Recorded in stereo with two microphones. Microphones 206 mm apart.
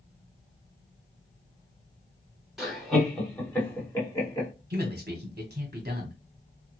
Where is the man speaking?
45° right (ahead or behind), 1.0 m.